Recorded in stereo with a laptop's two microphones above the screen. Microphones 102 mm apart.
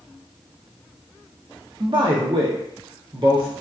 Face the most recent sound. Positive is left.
turn(degrees=-55)  # may be behind; listen again after turning